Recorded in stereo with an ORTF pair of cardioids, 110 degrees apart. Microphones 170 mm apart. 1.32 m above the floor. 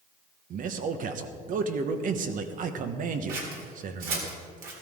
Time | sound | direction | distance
0.5 | a man speaking | 55° right | 1.3 m
3.3 | scissors | 60° right | 3.5 m